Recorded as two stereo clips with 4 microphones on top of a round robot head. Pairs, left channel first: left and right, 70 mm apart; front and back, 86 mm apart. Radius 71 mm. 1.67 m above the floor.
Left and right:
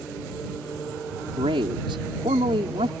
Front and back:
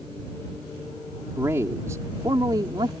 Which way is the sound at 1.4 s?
105° right.